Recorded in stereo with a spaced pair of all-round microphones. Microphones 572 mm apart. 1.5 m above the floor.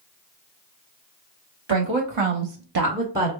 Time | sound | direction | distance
1.7 | a woman speaking | 50° right (ahead or behind) | 1.5 m